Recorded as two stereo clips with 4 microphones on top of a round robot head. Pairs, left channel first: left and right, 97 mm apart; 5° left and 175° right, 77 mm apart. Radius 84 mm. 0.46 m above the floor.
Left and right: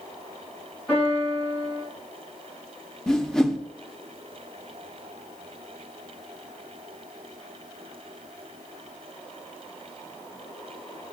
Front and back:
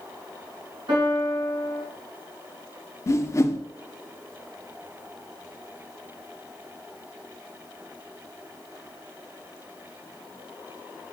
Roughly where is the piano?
Behind.